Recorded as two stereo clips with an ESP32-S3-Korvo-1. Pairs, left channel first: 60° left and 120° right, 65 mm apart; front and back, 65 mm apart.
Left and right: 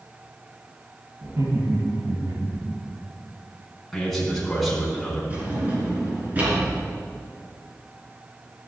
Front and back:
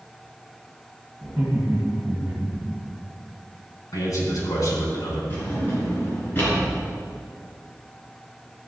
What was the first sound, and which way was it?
Laughter, 85° right.